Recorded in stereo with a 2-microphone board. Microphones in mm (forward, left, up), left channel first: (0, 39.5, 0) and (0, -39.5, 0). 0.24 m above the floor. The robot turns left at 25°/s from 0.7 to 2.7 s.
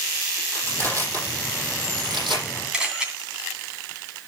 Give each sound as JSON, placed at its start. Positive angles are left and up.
{"t": 0.5, "sound": "crushing", "side_deg": -35, "distance_m": 6.5}
{"t": 2.7, "sound": "a camera shutter", "side_deg": -10, "distance_m": 2.5}